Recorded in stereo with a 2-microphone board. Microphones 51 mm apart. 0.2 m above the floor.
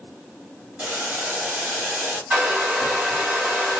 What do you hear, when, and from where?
0.8 s boiling: 20° right (ahead or behind), 1.8 m
2.3 s a hair dryer: 25° right (ahead or behind), 2 m